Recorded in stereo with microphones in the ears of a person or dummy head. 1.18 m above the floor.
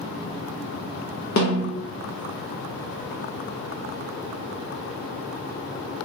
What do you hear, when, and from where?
1.4 s a snare drum: 35° left (ahead or behind), 0.5 m